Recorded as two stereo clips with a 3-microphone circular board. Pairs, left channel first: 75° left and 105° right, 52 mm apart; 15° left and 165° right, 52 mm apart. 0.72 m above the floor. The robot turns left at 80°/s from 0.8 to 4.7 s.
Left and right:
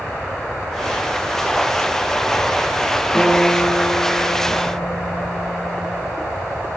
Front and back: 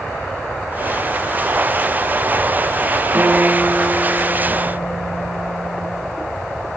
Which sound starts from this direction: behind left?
A guitar, at 3.1 s.